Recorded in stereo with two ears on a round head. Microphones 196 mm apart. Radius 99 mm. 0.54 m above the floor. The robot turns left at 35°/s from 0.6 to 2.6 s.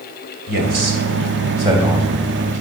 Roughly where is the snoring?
No snoring in this recording.